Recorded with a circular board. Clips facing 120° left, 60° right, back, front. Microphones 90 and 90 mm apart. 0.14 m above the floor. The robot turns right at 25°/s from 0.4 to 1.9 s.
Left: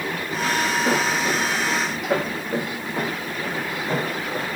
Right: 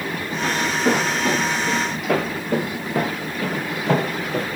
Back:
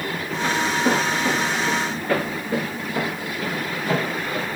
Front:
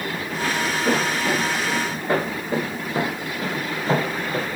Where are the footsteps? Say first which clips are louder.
Right 1 dB, back 2 dB; 110° right, 4 m; by 4.5 s 55° right, 1.8 m.